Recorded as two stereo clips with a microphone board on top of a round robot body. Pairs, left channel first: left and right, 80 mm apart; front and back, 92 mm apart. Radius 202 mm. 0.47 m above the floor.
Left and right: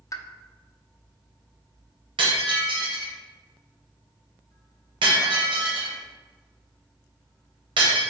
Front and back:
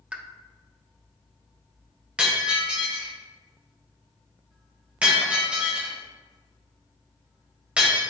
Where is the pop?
110° left, 0.7 m.